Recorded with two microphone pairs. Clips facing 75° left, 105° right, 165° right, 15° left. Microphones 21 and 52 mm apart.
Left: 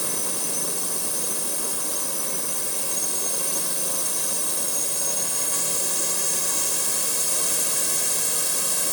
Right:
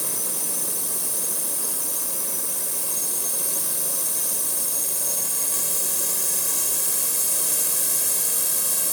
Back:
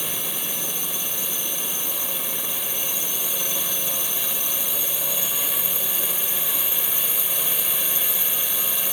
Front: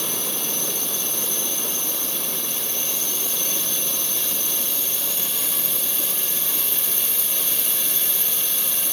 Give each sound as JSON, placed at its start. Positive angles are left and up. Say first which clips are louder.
{"t": 0.0, "sound": "a drone", "louder": "left 1 dB, front 2 dB", "azimuth_deg": 140}